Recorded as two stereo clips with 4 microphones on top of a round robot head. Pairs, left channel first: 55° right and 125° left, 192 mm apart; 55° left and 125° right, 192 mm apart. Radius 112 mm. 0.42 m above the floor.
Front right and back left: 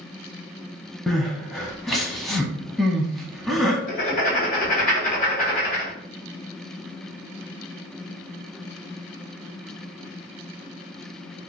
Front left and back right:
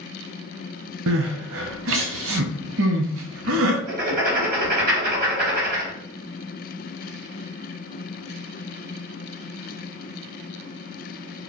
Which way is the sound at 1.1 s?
145° right.